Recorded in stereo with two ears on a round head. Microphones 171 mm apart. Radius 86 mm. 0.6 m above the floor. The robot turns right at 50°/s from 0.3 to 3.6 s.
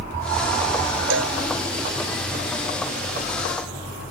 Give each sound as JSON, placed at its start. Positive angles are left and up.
{"t": 1.1, "sound": "a cowbell", "side_deg": -70}